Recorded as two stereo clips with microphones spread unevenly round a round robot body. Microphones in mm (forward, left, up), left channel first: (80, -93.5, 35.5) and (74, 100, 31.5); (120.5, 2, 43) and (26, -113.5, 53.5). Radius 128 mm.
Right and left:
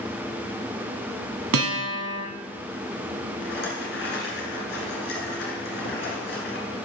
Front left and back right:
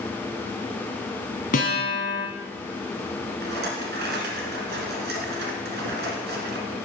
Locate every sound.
1.5 s a guitar: 105° left, 1.5 m
3.4 s a rattle: 140° right, 1.5 m